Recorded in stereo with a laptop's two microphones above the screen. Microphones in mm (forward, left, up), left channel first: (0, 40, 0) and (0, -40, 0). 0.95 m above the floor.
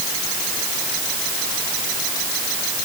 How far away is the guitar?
I don't hear a guitar.